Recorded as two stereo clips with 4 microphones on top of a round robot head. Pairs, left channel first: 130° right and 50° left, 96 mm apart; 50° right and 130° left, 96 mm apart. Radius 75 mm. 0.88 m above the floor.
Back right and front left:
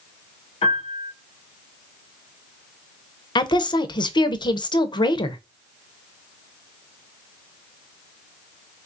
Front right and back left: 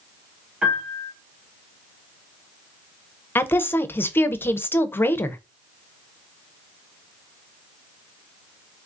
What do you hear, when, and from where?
0.6 s a piano: 155° right, 2 m
3.4 s a woman speaking: 115° right, 0.6 m